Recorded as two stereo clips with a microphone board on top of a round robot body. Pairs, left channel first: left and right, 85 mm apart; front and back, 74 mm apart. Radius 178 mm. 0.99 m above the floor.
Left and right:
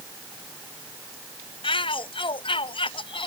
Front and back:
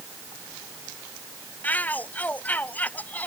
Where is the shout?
70° left.